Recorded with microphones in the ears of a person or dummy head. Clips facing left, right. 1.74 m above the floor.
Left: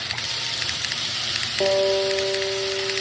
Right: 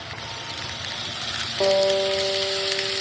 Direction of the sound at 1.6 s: 10° left (ahead or behind).